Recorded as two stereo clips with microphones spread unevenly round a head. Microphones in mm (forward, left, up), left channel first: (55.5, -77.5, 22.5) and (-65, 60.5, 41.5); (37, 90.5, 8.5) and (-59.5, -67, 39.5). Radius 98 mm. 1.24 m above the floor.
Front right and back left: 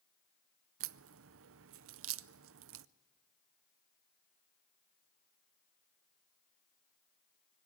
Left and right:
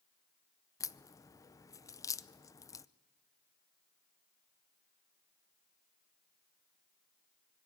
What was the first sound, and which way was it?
A crack, 130° left.